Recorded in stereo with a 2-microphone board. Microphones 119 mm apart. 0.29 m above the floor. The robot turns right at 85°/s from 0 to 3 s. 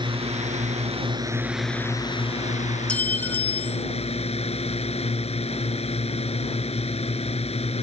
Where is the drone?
140° right; by 7.8 s 115° left.